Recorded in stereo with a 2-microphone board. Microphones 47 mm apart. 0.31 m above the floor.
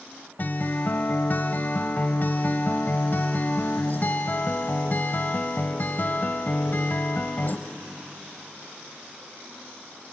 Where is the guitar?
50° left (ahead or behind), 1.1 m.